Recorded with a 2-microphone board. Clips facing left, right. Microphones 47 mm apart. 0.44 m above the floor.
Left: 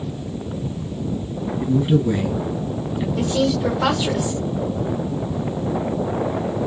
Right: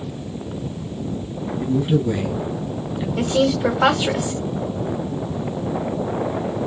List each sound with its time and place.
1.6 s a man speaking: 15° left (ahead or behind), 3 m
3.2 s a woman speaking: 35° right (ahead or behind), 1.2 m